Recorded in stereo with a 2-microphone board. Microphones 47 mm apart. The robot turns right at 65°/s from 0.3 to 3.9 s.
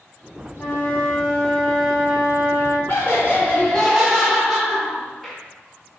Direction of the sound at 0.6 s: 120° left.